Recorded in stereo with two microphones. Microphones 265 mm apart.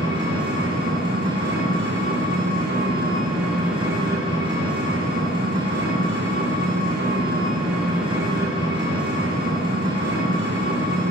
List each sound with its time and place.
0.0 s an engine running: 45° right (ahead or behind), 2.5 m